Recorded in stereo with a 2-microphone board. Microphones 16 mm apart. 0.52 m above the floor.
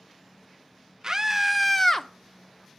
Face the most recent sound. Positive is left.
turn(degrees=30)  # may be behind; listen again after turning